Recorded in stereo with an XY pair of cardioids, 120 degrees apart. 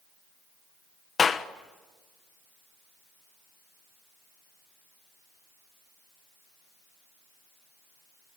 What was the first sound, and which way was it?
A clap, 30° left.